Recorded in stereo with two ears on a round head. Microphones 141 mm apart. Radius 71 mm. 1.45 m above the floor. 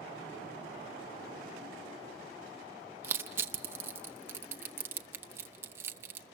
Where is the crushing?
15° right (ahead or behind), 1.0 m.